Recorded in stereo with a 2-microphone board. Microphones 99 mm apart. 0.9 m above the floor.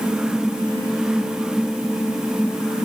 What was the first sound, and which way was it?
Only background noise.